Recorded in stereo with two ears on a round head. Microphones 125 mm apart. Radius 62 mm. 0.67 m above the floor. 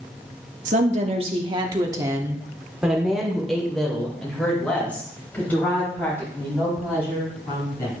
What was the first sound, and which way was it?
A woman speaking, 55° right (ahead or behind).